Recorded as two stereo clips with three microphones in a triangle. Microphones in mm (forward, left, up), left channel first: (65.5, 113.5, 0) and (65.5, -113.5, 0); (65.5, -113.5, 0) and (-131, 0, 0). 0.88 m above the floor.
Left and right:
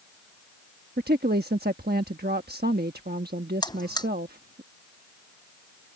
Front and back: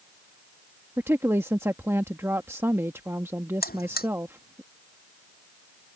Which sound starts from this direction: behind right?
A woman speaking, at 1.0 s.